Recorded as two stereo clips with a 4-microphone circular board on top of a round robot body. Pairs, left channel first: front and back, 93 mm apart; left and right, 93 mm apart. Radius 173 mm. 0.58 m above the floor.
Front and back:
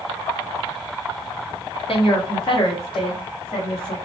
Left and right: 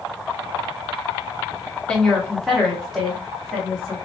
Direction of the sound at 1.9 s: 10° left.